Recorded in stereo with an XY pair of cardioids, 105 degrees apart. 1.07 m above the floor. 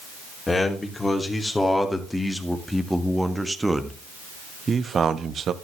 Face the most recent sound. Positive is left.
turn(degrees=-55)